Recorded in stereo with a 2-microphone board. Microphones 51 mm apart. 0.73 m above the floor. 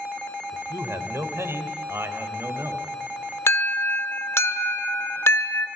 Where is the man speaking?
70° right (ahead or behind), 3 m; by 2.8 s 65° right (ahead or behind), 4 m.